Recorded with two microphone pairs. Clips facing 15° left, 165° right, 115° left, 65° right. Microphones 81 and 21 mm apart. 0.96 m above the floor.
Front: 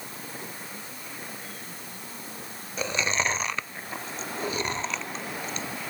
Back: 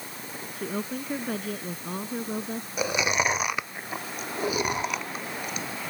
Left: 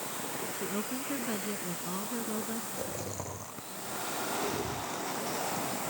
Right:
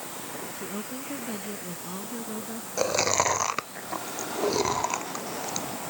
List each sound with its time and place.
0.5 s a woman speaking: 165° right
2.8 s chewing: 85° right